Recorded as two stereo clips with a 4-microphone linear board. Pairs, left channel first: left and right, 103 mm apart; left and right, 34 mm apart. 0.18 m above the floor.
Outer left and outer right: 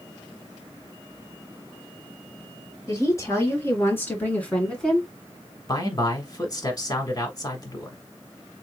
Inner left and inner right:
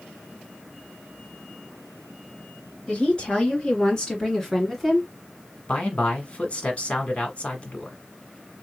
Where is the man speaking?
35° left (ahead or behind), 1.3 m.